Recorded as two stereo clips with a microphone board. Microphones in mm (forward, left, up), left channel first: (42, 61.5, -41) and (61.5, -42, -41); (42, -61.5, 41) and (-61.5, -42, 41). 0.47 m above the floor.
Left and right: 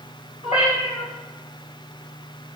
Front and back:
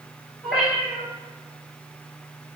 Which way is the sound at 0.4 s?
85° left.